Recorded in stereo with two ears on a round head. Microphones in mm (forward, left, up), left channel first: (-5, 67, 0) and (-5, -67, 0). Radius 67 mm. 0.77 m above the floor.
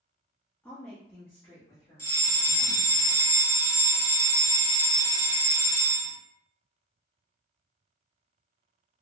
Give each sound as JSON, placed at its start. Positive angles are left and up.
{"t": 0.6, "sound": "a woman speaking", "side_deg": 10, "distance_m": 1.0}
{"t": 2.0, "sound": "a fire alarm", "side_deg": 15, "distance_m": 1.4}